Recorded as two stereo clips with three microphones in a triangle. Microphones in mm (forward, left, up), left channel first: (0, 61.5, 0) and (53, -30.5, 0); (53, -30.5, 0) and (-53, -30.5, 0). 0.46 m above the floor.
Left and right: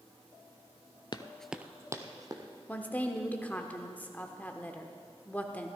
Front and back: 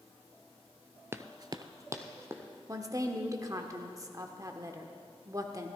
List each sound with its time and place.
1.1 s running footsteps: 125° left, 0.5 m; by 2.4 s 110° right, 1.7 m
2.7 s a woman speaking: straight behind, 0.8 m